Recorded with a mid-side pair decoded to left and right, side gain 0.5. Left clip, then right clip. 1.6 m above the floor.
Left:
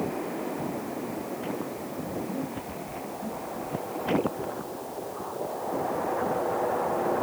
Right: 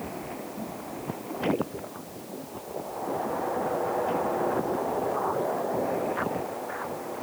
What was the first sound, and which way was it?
Only background noise.